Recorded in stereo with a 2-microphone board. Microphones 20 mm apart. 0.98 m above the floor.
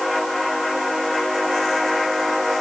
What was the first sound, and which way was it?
Only background noise.